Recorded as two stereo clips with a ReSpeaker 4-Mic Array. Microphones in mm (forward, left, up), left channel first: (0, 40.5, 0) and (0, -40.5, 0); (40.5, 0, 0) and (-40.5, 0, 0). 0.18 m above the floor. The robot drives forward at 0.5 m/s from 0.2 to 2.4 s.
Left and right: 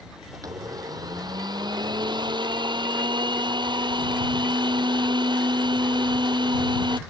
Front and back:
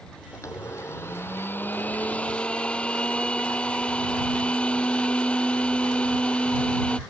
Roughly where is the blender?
Ahead right.